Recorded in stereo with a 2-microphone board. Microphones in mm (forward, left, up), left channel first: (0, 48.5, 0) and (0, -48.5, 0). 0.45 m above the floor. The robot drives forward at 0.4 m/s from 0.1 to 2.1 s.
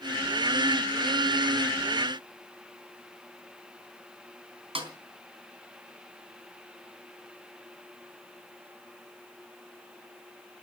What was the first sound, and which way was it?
A snare drum, 70° right (ahead or behind).